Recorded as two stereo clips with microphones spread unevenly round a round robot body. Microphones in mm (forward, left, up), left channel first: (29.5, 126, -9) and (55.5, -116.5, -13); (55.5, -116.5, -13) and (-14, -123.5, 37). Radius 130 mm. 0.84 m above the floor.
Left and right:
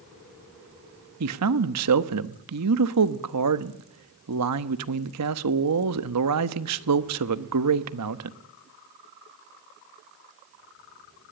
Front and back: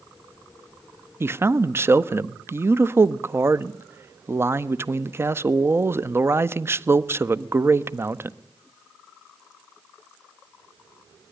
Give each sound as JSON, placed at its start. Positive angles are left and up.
{"t": 1.2, "sound": "a man speaking", "azimuth_deg": -100, "distance_m": 1.1}